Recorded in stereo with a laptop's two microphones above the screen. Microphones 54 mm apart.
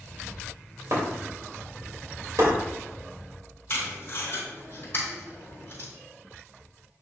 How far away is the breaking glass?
About 2.5 m.